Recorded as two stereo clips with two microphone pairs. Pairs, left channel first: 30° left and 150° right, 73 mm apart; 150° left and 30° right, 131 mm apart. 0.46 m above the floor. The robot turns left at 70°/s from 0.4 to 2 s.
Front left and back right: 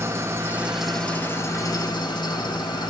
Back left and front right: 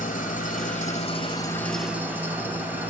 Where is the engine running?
155° left, 3 m; by 2.9 s 45° left, 3 m.